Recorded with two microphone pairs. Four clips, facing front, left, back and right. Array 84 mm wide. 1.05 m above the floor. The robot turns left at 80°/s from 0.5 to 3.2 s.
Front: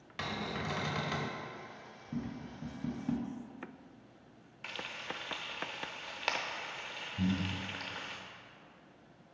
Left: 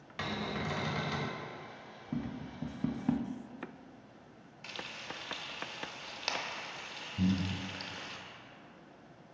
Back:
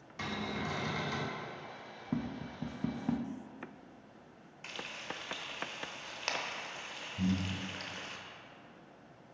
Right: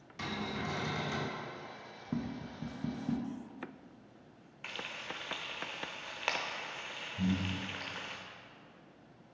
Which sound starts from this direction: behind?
Tapping, at 2.1 s.